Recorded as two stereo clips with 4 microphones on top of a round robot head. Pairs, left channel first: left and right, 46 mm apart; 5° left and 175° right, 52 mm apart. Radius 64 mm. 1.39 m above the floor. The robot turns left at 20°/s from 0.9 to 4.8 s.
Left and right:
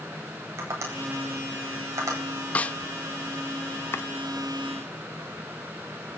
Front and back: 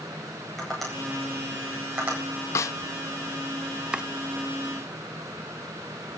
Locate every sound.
0.6 s tapping: 80° right, 9.5 m; by 2.2 s 105° right, 9.5 m
2.5 s a snare drum: 30° left, 0.5 m
3.9 s chopping: 115° left, 0.5 m